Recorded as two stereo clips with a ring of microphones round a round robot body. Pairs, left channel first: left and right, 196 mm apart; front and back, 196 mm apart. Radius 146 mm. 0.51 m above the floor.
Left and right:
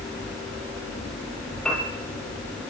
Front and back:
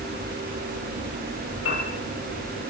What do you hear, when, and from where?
1.6 s a piano: 5° left, 9 m